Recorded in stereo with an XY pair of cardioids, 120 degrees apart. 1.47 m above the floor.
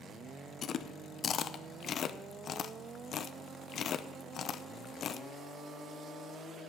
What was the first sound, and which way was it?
Chewing, 50° left.